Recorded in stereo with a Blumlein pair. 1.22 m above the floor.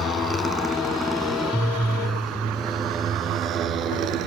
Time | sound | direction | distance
0.0 | a motorcycle | 15° left | ?